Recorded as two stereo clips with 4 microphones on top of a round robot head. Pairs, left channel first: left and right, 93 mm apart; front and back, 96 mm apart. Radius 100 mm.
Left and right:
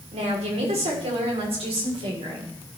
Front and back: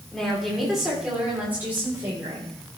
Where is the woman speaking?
85° right, 3 m; by 2.5 s 115° right, 4 m.